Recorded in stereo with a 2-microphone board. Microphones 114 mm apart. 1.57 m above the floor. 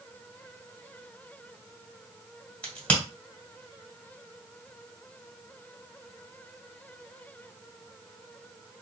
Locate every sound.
2.6 s a crack: 10° left (ahead or behind), 1.8 m